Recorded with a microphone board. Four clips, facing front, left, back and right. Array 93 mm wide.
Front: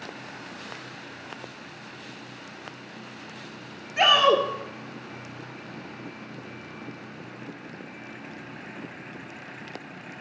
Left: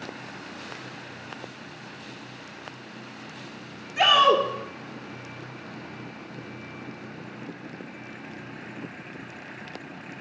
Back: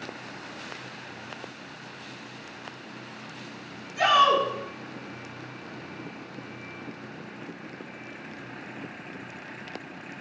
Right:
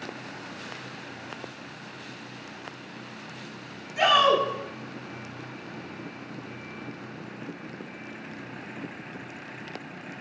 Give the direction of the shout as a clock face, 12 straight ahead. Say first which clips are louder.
Left 1 dB, even; 11 o'clock.